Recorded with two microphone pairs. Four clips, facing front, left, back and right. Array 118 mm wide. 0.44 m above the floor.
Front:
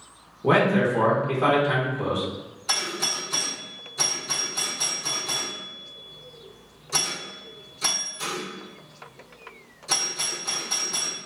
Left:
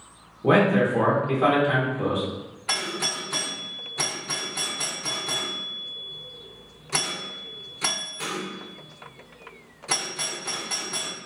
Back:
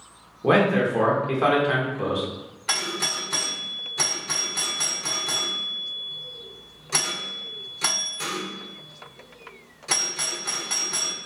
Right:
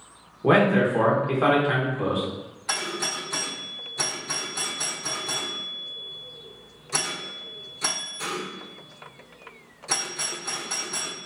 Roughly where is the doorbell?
Behind.